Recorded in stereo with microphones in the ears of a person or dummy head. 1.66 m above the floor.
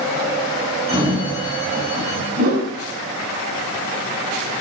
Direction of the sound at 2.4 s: 60° right (ahead or behind).